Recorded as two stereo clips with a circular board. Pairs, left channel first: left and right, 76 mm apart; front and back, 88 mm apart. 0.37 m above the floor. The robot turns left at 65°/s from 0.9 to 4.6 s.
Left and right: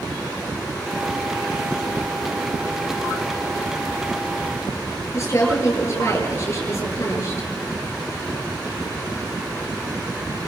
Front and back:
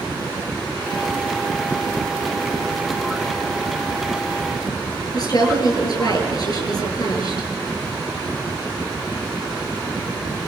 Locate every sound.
5.1 s a woman speaking: 40° left, 8.5 m